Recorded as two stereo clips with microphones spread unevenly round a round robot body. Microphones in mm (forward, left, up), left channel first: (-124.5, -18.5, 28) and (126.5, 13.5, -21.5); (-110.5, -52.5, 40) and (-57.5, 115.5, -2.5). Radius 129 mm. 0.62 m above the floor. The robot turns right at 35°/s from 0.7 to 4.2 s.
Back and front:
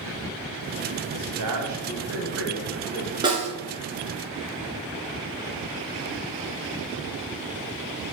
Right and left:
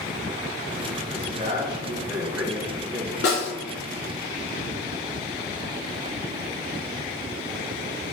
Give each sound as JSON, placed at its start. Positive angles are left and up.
{"t": 1.1, "sound": "a man speaking", "azimuth_deg": -5, "distance_m": 3.0}
{"t": 3.2, "sound": "a snare drum", "azimuth_deg": -70, "distance_m": 1.5}